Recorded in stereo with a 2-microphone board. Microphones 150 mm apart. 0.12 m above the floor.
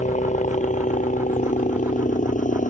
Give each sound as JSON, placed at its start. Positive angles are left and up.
{"t": 0.0, "sound": "a helicopter", "side_deg": 55}